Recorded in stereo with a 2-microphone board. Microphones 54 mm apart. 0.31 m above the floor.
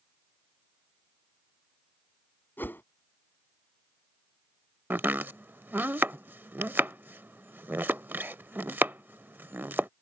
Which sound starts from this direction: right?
Chopping, at 4.9 s.